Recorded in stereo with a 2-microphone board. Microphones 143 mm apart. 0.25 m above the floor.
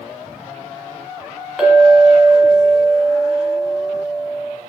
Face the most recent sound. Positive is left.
turn(degrees=0)  # may be behind; listen again after turning